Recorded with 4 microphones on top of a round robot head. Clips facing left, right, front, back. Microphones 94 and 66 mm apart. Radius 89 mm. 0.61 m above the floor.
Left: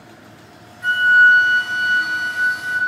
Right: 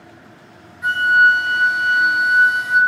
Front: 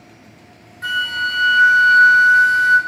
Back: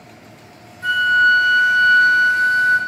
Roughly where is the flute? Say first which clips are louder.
Left 1 dB, back 7 dB; ahead.